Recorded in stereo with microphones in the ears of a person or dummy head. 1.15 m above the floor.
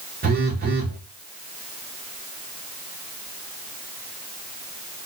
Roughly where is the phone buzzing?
Right.